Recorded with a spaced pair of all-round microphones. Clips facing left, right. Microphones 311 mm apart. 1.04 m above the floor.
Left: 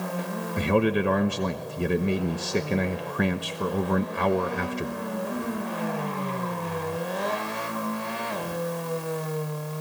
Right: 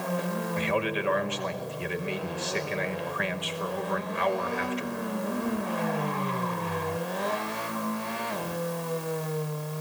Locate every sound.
0.6 s a man speaking: 50° left (ahead or behind), 1.0 m